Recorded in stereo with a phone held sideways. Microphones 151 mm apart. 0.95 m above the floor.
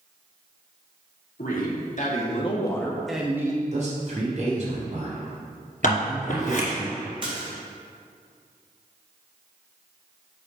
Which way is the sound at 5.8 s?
60° left (ahead or behind).